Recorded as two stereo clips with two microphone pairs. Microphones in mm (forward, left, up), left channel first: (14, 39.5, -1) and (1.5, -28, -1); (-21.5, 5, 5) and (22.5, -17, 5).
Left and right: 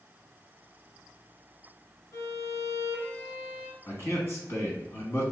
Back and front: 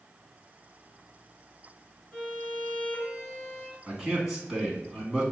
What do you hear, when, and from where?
2.1 s a violin: 90° left, 1.5 m
3.9 s a man speaking: 55° left, 1.9 m